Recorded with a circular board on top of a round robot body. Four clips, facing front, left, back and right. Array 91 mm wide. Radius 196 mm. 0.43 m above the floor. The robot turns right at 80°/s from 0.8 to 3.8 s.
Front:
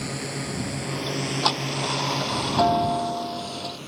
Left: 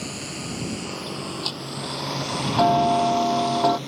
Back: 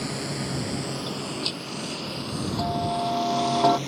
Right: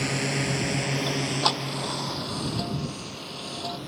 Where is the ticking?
70° right; by 3.8 s 150° left.